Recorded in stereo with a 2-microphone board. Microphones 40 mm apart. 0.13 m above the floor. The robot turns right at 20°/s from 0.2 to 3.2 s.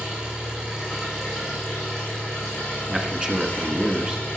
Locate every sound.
0.0 s an engine running: 25° right, 6 m; by 4.4 s 35° left, 6 m
2.9 s a man speaking: 25° right (ahead or behind), 1.5 m